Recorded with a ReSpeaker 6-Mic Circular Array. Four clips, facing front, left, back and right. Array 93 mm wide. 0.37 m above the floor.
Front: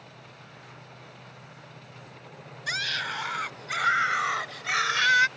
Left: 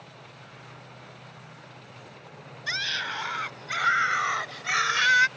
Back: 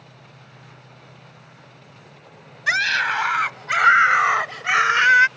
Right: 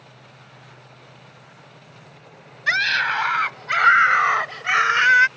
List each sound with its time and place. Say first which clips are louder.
2.7 s a scream: right 11 dB, back 11 dB; 140° right; by 5.3 s 145° right